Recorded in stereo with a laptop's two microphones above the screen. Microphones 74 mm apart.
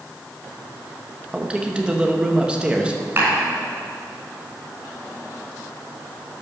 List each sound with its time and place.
1.3 s a man speaking: 15° right (ahead or behind), 0.8 m
3.2 s a clap: 30° right (ahead or behind), 4 m